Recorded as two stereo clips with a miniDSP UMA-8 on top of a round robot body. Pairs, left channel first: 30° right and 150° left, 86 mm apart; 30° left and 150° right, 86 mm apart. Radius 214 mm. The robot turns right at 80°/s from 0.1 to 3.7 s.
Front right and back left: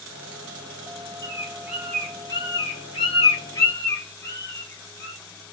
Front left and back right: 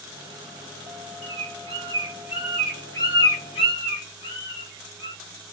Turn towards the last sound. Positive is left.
turn(degrees=30)